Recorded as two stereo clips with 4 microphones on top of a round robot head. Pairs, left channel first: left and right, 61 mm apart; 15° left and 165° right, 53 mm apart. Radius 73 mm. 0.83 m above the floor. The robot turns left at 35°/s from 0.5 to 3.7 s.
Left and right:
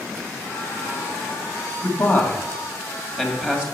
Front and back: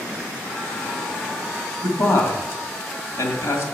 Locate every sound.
1.8 s a man speaking: 40° left, 2 m; by 3.6 s 25° right, 2 m